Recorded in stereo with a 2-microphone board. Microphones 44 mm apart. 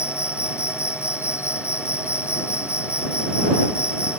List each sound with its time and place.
0.0 s an insect: 80° left